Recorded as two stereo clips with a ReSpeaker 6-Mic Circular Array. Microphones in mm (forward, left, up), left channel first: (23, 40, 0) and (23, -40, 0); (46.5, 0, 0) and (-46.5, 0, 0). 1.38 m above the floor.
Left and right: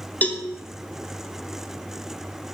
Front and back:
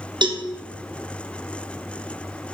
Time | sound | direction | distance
0.2 | a cowbell | 155° left | 0.7 m